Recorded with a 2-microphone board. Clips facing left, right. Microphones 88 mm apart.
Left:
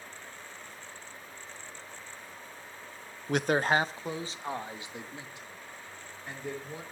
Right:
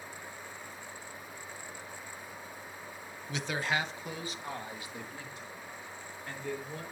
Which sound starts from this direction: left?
A man speaking, at 3.3 s.